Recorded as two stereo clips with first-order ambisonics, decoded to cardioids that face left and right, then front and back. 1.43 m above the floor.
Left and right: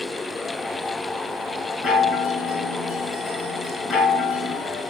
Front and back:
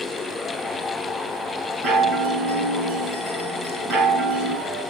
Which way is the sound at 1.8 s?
145° left.